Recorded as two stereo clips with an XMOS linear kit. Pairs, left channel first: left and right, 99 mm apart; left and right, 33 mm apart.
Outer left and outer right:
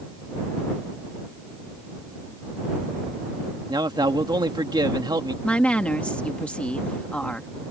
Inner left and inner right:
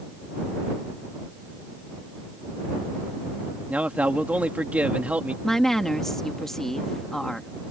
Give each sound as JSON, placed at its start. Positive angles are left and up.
{"t": 3.7, "sound": "a man speaking", "side_deg": -45}
{"t": 5.4, "sound": "a woman speaking", "side_deg": 10}